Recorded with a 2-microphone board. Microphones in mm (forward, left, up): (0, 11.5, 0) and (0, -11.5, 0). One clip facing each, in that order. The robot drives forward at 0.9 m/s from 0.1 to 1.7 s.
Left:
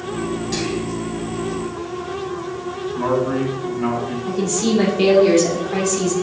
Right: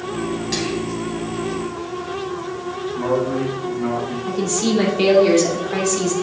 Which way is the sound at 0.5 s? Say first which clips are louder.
Even; 30° right (ahead or behind).